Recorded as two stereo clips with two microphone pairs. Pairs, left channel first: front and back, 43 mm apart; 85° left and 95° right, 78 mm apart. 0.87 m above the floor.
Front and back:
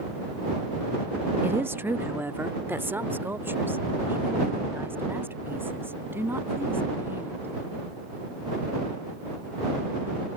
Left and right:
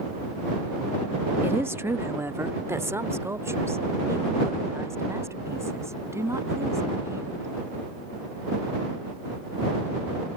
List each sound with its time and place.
1.4 s a woman speaking: 155° right; by 7.5 s 145° right